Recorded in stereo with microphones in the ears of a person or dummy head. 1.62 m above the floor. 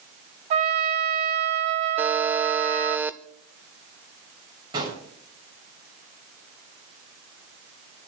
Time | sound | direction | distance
0.5 | a trumpet | 40° right (ahead or behind) | 0.7 m
2.0 | a buzzer | 10° right (ahead or behind) | 0.6 m
4.7 | a gunshot | 25° right (ahead or behind) | 7.5 m